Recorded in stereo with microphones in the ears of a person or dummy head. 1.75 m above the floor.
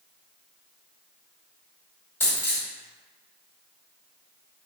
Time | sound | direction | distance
2.2 | a dropped coin | 15° left (ahead or behind) | 1.7 m